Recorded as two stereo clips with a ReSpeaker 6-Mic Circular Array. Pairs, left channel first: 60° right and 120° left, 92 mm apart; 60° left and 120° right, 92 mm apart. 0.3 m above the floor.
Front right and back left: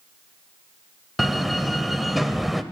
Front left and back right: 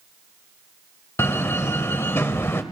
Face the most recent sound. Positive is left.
turn(degrees=35)